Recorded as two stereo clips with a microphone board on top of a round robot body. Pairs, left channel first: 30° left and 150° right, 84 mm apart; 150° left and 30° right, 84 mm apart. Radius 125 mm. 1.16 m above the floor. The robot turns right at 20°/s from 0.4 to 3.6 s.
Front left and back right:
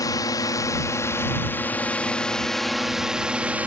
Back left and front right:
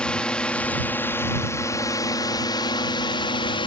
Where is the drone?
70° left; by 3.7 s 135° left.